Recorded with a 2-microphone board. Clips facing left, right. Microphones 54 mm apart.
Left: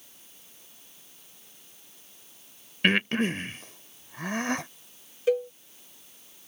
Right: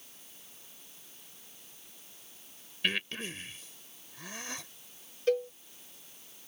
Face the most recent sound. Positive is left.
turn(degrees=10)  # may be behind; listen again after turning